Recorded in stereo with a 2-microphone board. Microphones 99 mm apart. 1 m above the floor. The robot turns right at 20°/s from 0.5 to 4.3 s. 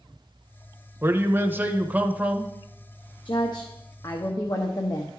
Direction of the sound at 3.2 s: 50° left (ahead or behind).